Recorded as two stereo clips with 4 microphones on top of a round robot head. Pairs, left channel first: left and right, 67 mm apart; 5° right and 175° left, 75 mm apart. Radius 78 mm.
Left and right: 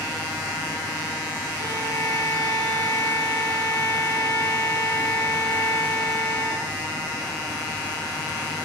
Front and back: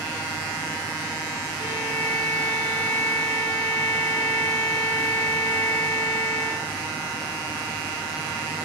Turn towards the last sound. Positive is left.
turn(degrees=-95)